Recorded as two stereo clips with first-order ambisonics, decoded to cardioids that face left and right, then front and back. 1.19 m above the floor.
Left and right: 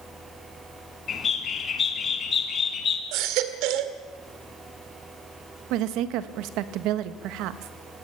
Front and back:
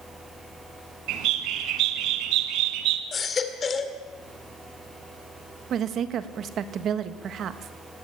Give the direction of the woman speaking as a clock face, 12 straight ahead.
4 o'clock.